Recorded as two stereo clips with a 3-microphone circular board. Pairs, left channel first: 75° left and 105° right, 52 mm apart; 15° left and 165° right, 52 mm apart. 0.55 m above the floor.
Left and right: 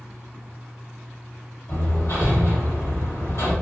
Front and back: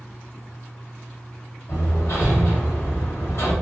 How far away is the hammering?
About 1.8 m.